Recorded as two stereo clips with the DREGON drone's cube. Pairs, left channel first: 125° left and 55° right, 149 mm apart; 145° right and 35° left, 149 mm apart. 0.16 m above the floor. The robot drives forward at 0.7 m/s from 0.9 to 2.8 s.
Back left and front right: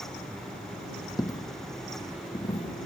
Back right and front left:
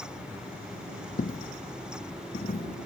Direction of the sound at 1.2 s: 170° right.